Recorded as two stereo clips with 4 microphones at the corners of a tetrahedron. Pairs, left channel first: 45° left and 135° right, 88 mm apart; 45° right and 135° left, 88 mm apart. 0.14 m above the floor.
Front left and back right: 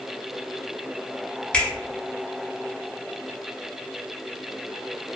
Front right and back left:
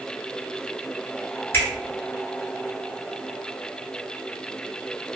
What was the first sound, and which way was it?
A finger snap, 20° right.